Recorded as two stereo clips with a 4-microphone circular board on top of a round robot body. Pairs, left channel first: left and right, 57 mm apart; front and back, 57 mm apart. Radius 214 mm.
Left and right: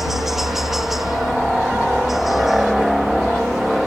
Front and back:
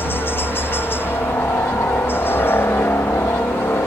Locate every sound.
0.0 s a helicopter: 10° right; by 3.9 s 5° right